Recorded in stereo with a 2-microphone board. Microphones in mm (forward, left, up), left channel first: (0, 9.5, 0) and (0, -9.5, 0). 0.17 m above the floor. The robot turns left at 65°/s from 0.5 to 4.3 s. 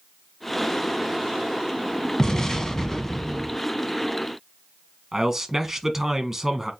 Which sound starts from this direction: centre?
A man speaking, at 5.1 s.